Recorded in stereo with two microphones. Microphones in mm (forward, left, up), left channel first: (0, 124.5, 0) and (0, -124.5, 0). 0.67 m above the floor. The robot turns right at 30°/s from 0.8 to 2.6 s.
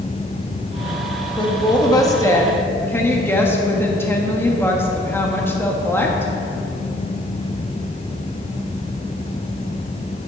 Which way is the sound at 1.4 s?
20° left (ahead or behind).